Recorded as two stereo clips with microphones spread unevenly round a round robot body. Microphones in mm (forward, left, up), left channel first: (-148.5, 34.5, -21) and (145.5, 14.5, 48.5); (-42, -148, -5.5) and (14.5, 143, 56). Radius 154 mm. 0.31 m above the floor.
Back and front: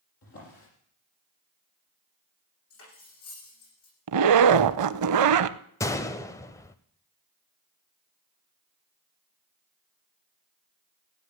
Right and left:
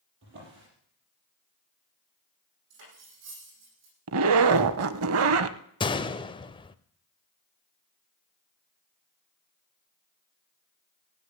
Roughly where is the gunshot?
Behind right.